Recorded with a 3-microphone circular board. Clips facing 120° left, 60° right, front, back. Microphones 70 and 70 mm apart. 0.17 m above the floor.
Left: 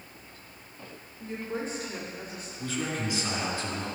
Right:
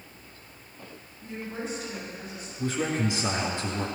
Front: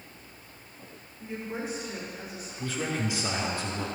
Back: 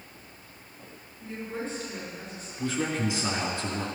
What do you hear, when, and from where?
1.2 s a woman speaking: 75° left, 5 m; by 2.5 s 80° left, 5.5 m
2.6 s a man speaking: 120° right, 2.5 m